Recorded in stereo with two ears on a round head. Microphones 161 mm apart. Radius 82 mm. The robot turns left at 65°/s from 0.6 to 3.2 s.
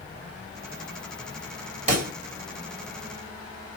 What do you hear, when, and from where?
1.9 s a pop: 35° right (ahead or behind), 2.0 m; by 2.1 s 50° right (ahead or behind), 2.0 m